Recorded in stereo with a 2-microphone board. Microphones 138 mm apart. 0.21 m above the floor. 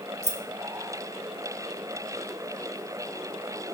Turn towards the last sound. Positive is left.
turn(degrees=60)  # may be behind; listen again after turning